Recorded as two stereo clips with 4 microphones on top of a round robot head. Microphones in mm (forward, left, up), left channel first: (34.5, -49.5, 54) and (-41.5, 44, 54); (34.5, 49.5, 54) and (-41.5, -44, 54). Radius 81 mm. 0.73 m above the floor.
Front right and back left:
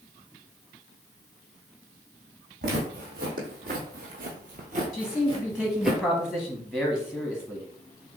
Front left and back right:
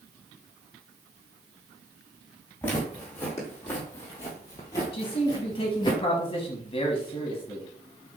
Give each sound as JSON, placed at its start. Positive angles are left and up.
{"t": 2.6, "sound": "footsteps", "azimuth_deg": 125, "distance_m": 2.0}
{"t": 4.9, "sound": "a man speaking", "azimuth_deg": 45, "distance_m": 1.0}